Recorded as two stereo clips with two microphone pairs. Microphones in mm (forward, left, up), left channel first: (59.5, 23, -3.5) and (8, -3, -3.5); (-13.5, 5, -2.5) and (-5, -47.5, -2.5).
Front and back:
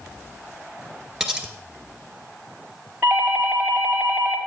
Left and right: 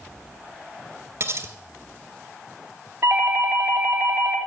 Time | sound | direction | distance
1.2 | cutlery clinking | 75° right | 1.3 m
3.0 | a doorbell | 115° right | 2.5 m